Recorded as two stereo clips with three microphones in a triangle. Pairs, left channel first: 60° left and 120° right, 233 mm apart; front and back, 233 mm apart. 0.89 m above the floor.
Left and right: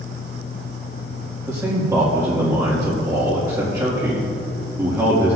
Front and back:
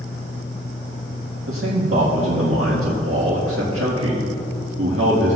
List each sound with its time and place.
1.5 s a man speaking: 165° left, 1.7 m